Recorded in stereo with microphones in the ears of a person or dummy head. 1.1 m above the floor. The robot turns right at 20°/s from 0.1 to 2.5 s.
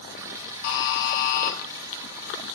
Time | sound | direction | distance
0.6 | a buzzer | 55° left (ahead or behind) | 1.0 m